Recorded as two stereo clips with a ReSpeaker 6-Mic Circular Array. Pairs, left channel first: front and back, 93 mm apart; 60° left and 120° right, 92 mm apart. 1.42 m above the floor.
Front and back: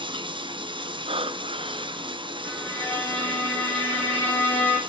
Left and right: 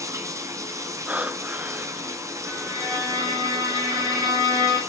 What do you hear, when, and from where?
0.0 s running water: 170° right, 2.5 m
1.1 s breathing: 165° left, 0.8 m
2.4 s a violin: 70° right, 8 m